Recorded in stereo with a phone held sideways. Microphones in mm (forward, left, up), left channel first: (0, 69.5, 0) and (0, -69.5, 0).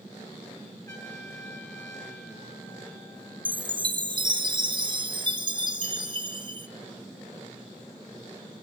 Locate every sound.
0.9 s a trumpet: 25° left (ahead or behind), 8 m
3.5 s a chime: 35° right (ahead or behind), 1.0 m